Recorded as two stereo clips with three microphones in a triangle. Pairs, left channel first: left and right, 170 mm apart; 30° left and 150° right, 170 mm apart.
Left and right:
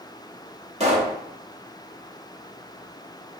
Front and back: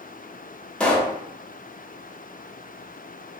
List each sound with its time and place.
0.8 s a pop: 55° right, 0.6 m